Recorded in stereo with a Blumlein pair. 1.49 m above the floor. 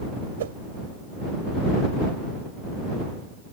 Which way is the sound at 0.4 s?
60° right.